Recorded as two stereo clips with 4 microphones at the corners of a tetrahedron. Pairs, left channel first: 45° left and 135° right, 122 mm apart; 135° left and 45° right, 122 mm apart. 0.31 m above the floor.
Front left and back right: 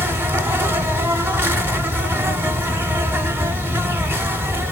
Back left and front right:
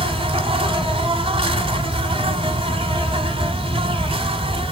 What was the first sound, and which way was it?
An insect, 65° right.